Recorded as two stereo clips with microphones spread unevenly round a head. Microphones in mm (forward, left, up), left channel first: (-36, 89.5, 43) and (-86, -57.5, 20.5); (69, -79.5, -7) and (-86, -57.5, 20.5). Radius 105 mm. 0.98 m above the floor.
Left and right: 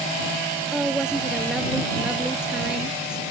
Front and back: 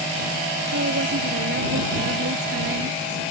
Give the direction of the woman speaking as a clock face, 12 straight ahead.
6 o'clock.